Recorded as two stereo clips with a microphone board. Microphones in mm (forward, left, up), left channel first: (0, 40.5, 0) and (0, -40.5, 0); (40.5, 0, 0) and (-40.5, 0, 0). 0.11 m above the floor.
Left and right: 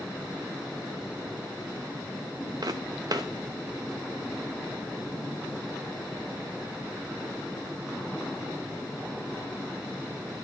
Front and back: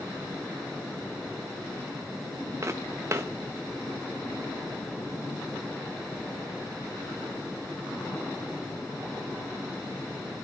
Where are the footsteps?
125° right, 0.9 m.